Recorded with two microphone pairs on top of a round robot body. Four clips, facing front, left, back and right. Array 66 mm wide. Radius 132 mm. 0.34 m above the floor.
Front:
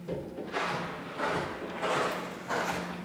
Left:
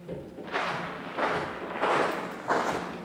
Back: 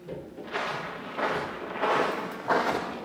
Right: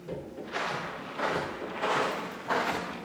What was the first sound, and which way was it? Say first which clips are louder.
Footsteps: left 3 dB, back 2 dB; 120° left.